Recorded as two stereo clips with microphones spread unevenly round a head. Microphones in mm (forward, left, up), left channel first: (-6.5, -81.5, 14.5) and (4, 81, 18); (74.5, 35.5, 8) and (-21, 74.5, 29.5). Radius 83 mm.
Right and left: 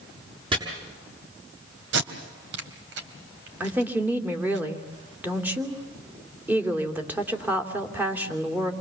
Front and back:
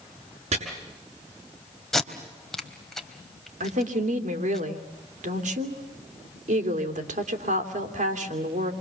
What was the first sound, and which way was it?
Chopping, 145° left.